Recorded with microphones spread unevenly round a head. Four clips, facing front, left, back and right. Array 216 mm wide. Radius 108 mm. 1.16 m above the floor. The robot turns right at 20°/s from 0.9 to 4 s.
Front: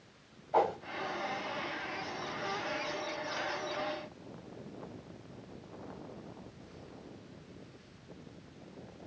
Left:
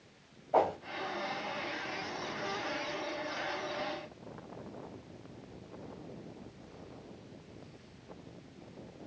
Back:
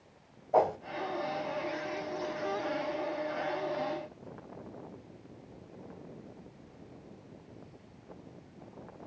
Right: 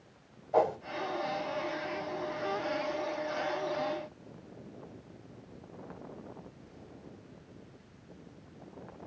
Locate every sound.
0.5 s a whoosh: 170° right, 1.0 m